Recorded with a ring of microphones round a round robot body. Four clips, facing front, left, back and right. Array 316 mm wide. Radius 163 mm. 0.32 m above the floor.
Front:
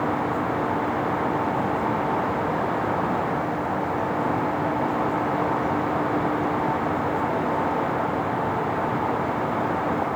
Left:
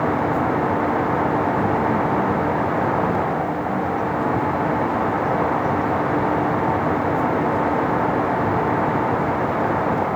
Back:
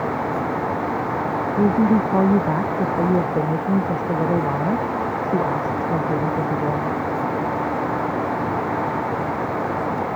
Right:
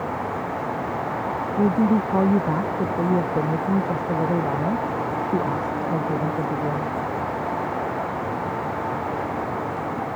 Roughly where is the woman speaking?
Behind right.